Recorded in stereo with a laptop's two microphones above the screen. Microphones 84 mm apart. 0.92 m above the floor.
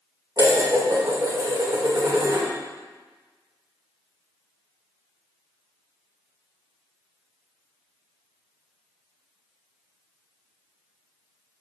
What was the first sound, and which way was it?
Dishes clattering, 55° right (ahead or behind).